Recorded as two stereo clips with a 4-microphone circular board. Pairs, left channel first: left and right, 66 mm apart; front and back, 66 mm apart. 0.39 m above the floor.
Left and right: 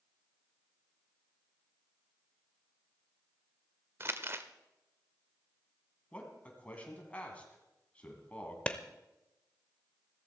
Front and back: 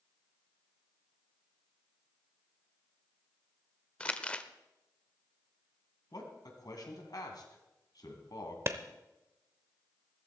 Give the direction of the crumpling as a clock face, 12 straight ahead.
2 o'clock.